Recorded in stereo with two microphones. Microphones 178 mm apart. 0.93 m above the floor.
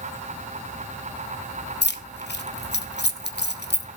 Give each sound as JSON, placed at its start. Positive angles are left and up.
{"t": 1.8, "sound": "keys jangling", "side_deg": 75, "distance_m": 0.8}